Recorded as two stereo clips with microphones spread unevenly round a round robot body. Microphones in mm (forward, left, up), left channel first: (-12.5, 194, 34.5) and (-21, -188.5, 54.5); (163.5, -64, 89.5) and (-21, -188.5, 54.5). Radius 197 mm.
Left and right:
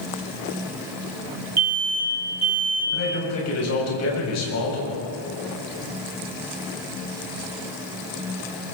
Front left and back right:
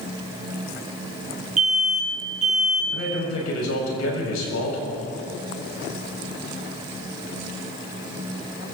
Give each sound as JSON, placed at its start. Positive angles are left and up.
{"t": 1.6, "sound": "an alarm", "azimuth_deg": -130, "distance_m": 4.0}
{"t": 2.9, "sound": "a man speaking", "azimuth_deg": 35, "distance_m": 7.5}